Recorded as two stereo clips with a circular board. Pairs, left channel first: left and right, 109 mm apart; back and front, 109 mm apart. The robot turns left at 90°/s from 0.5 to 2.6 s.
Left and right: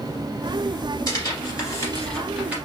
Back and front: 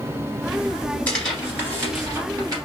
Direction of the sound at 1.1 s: 115° left.